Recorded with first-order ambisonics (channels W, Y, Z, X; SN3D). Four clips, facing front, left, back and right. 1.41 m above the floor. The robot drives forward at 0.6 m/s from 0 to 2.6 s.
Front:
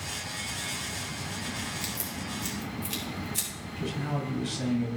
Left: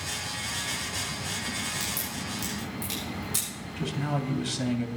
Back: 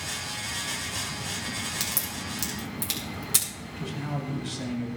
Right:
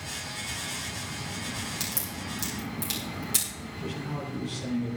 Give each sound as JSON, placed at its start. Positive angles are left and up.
{"t": 1.8, "sound": "a crack", "azimuth_deg": -165, "distance_m": 7.0}
{"t": 3.8, "sound": "a man speaking", "azimuth_deg": 85, "distance_m": 3.0}